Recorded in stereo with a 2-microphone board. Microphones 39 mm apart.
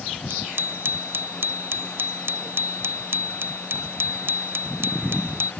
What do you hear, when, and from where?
0.3 s a bicycle bell: 65° right (ahead or behind)